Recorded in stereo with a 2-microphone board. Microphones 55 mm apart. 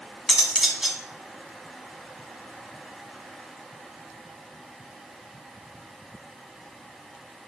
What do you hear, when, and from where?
0.3 s cutlery clinking: 10° right (ahead or behind), 1.3 m